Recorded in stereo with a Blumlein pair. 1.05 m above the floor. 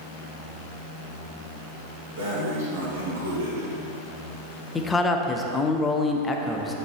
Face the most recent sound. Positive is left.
turn(degrees=10)